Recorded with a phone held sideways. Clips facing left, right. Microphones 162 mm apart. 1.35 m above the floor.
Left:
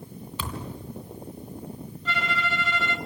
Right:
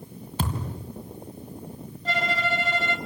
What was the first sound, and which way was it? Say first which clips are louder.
A thud: right 5 dB; 45° right (ahead or behind).